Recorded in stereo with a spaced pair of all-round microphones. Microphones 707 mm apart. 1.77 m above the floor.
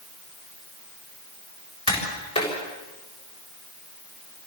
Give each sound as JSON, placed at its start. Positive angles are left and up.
{"t": 1.9, "sound": "tapping", "side_deg": 10, "distance_m": 6.5}